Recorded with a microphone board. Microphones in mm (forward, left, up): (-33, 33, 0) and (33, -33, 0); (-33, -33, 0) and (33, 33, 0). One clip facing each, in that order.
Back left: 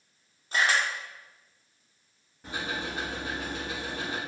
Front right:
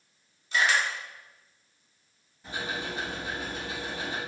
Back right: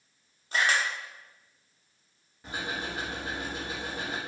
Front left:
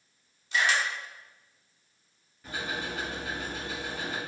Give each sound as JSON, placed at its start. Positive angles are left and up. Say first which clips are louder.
{"t": 0.5, "sound": "a camera shutter", "louder": "even, even", "azimuth_deg": 180, "distance_m": 0.7}
{"t": 2.4, "sound": "ticking", "louder": "even, even", "azimuth_deg": 165, "distance_m": 1.9}